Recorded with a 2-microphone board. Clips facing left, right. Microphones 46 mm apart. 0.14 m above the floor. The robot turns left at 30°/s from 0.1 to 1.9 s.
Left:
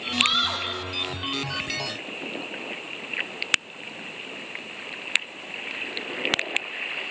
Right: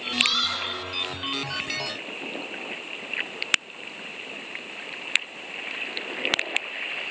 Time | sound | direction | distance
0.2 | a scream | 25° left (ahead or behind) | 5.5 m